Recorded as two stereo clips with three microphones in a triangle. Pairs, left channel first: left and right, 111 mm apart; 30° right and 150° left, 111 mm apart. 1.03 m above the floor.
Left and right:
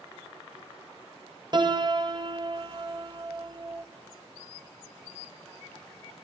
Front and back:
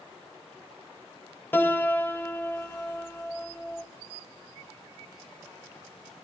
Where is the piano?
90° right, 0.7 m.